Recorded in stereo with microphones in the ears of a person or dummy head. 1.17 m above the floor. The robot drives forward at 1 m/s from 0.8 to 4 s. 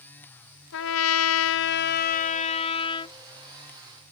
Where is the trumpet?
65° left (ahead or behind); by 3.2 s 25° left (ahead or behind).